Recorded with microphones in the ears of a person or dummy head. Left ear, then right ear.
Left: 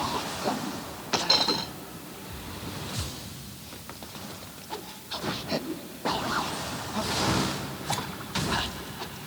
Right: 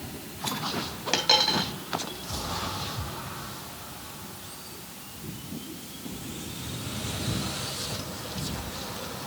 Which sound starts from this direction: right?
A dropped coin, at 1.1 s.